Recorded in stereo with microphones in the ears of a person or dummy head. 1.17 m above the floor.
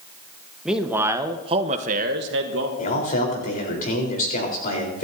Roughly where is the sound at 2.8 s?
Left.